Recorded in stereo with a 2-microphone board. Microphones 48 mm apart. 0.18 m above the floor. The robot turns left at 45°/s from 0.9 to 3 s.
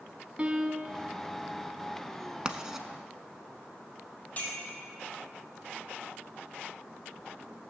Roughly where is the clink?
Left.